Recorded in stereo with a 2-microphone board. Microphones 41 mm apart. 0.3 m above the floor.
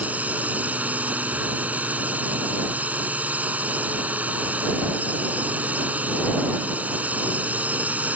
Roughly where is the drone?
Right.